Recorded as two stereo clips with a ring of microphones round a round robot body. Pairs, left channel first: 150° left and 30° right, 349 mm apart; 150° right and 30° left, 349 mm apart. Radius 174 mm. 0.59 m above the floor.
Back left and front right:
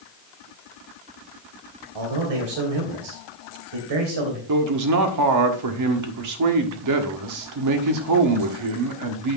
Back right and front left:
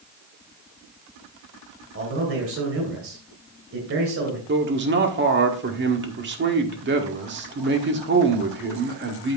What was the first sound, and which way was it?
A man speaking, 25° right.